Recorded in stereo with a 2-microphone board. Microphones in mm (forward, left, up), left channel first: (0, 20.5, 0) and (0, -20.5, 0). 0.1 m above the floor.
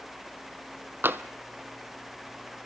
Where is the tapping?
65° right (ahead or behind), 0.8 m.